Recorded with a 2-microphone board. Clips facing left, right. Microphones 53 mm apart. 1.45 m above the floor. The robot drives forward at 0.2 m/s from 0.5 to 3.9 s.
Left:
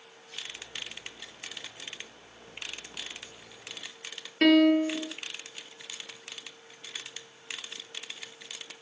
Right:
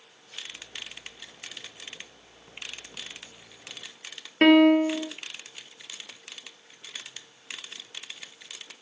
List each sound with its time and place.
4.4 s a piano: 30° right (ahead or behind), 0.6 m